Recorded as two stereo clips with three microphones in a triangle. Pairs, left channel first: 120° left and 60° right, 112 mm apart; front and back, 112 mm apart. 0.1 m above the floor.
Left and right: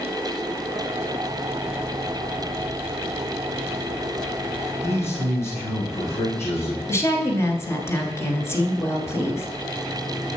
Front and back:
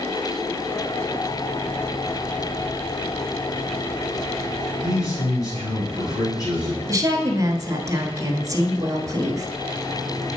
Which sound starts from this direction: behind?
A woman speaking, at 6.9 s.